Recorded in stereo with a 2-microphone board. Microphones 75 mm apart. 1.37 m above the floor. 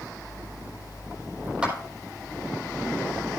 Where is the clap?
15° right (ahead or behind), 4.5 m.